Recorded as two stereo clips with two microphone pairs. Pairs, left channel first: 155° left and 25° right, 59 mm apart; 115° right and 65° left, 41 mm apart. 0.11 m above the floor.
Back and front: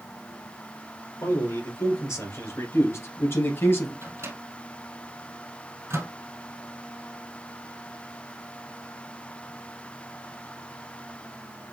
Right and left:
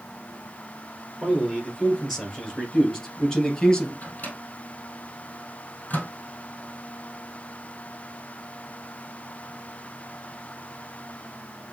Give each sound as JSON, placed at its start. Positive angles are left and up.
{"t": 1.2, "sound": "a man speaking", "azimuth_deg": 150, "distance_m": 3.0}
{"t": 4.0, "sound": "a microwave", "azimuth_deg": -65, "distance_m": 2.5}